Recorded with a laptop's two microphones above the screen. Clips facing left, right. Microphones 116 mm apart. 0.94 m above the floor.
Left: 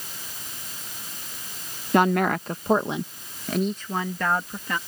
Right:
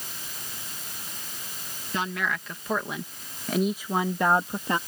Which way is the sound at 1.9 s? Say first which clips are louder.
Left 10 dB; 55° left (ahead or behind).